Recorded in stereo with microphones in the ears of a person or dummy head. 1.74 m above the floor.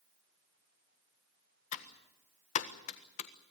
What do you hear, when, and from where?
1.7 s typing on a keyboard: 45° left (ahead or behind), 1.3 m